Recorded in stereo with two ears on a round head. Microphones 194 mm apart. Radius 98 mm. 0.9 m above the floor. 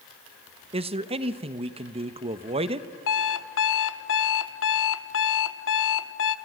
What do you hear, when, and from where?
0.7 s a man speaking: 30° right (ahead or behind), 0.9 m
3.1 s an alarm clock: 65° left (ahead or behind), 0.9 m